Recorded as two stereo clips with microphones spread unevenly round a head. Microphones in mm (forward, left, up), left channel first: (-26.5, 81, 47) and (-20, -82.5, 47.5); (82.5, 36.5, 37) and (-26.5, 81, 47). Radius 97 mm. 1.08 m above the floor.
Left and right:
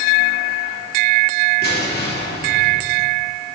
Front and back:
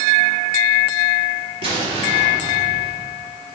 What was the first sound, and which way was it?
An explosion, 120° left.